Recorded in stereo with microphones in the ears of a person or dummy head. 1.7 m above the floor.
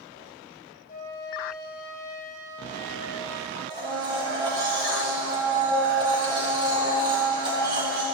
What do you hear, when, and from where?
0.9 s a flute: 45° left (ahead or behind), 1.5 m
3.7 s a blender: 25° right (ahead or behind), 2 m